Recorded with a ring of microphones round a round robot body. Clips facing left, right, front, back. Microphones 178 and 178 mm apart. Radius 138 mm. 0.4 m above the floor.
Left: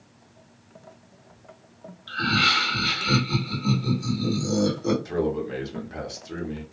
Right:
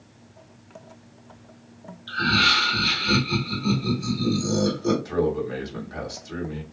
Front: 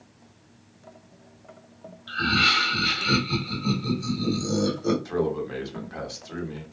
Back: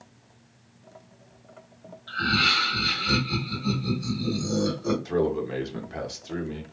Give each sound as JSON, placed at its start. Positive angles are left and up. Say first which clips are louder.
{"t": 2.1, "sound": "laughter", "louder": "right 1 dB, front 1 dB", "azimuth_deg": 35, "distance_m": 1.7}
{"t": 5.0, "sound": "a man speaking", "louder": "right 2 dB, back 1 dB", "azimuth_deg": 130, "distance_m": 1.0}